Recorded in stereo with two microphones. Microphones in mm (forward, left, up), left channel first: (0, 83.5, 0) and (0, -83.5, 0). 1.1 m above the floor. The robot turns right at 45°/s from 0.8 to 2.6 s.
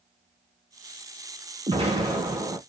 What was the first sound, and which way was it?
An explosion, 85° right.